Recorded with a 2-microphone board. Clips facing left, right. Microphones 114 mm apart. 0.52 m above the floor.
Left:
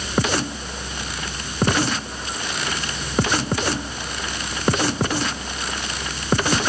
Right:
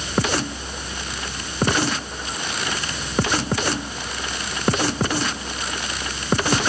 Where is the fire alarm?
I don't hear a fire alarm.